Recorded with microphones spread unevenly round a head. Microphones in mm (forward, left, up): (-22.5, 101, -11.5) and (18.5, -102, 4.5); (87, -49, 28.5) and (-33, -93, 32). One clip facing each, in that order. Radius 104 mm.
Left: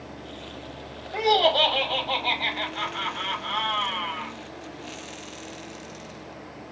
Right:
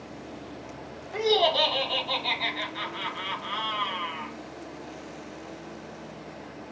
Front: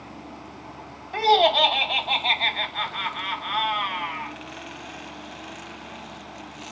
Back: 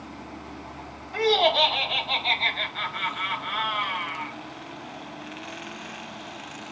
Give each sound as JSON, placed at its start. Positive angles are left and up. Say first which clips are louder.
{"t": 1.1, "sound": "laughter", "louder": "left 1 dB, front 3 dB", "azimuth_deg": 5, "distance_m": 2.0}